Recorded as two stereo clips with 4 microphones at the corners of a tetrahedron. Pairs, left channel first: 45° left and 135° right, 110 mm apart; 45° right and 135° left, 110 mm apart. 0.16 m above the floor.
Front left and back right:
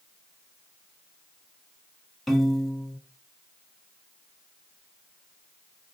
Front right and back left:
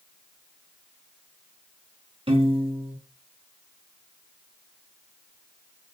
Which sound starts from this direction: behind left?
A piano, at 2.3 s.